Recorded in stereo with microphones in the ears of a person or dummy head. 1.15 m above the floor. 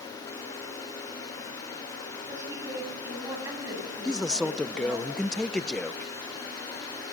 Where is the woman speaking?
15° right (ahead or behind), 9 m.